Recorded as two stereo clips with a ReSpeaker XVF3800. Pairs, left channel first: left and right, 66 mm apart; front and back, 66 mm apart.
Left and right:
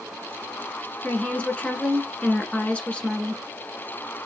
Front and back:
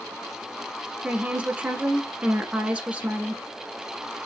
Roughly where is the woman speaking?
Behind left.